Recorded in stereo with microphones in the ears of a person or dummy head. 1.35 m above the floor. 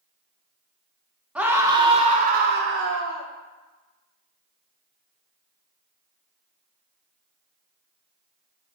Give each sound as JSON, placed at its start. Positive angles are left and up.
{"t": 1.4, "sound": "a scream", "side_deg": -5, "distance_m": 0.8}